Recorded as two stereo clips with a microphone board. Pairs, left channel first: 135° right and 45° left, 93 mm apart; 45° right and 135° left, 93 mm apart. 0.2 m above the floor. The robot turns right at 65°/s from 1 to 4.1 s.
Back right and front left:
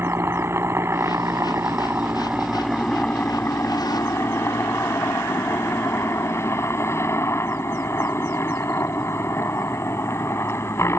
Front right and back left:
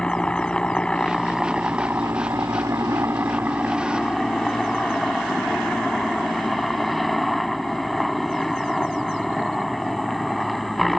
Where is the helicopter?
25° left; by 11.0 s 135° right.